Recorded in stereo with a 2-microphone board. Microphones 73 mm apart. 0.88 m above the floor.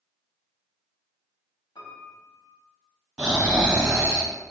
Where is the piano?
85° left, 1.0 m.